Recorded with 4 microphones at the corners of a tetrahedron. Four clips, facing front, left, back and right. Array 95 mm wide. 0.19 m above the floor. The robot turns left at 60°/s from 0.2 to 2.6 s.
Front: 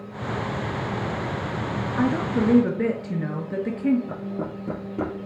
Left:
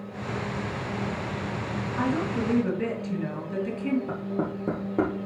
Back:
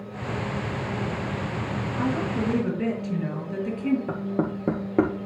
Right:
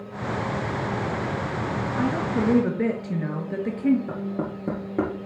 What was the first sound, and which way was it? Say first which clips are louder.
A woman speaking: right 2 dB, front 4 dB; 5° right.